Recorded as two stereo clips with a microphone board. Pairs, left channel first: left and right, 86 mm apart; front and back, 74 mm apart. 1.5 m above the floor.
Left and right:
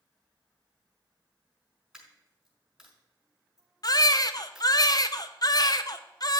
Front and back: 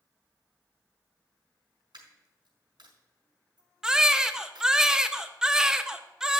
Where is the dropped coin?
170° right, 5 m.